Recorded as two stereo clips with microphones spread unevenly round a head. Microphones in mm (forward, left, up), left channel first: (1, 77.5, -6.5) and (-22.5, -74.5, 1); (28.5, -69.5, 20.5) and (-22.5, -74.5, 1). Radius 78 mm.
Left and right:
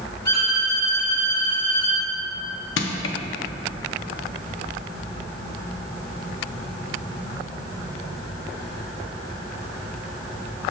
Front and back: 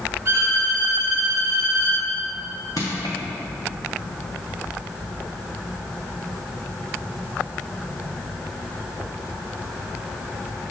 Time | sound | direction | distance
0.2 | a violin | 110° left | 1.6 m
2.8 | crushing | 65° left | 0.5 m